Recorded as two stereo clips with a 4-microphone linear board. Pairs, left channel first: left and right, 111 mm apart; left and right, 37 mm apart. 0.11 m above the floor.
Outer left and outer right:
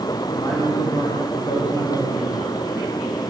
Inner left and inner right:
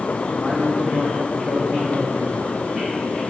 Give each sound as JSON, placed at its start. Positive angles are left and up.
{"t": 0.3, "sound": "a man speaking", "side_deg": 25, "distance_m": 5.5}